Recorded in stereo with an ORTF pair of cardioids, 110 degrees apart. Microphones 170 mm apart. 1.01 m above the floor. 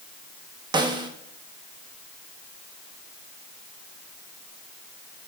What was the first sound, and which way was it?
A snare drum, 25° right.